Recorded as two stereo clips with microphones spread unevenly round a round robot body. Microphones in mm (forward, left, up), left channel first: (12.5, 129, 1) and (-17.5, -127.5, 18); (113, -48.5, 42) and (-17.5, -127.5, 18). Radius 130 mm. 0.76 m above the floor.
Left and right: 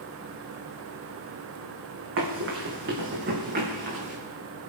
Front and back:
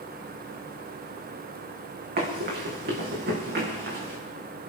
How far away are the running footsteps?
About 4 m.